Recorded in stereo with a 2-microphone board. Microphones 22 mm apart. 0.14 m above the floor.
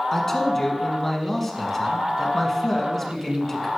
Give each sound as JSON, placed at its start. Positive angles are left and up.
{"t": 0.1, "sound": "a man speaking", "side_deg": 15, "distance_m": 1.2}